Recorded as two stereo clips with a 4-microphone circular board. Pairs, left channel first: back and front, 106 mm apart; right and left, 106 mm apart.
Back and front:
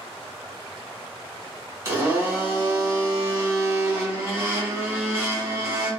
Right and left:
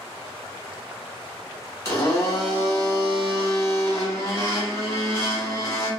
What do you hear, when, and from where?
1.9 s a blender: 45° right, 1.2 m